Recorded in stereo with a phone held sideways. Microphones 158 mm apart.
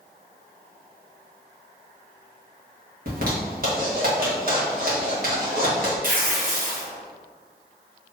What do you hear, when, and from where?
3.1 s a zipper: 60° right (ahead or behind), 1.7 m
6.0 s tearing paper: 60° right (ahead or behind), 1.1 m